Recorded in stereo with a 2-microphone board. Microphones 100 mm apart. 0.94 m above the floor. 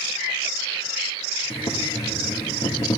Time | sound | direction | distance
1.5 | boiling | 75° left (ahead or behind) | 2.5 m